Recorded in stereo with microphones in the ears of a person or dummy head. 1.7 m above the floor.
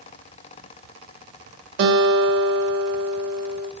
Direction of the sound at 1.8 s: 50° right (ahead or behind).